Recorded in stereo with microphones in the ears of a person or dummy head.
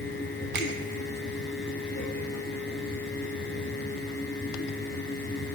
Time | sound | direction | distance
0.6 | a finger snap | 60° right (ahead or behind) | 1.1 m